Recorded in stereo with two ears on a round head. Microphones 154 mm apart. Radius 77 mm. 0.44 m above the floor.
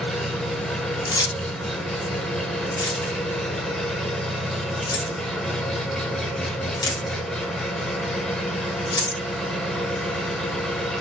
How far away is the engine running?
About 0.7 m.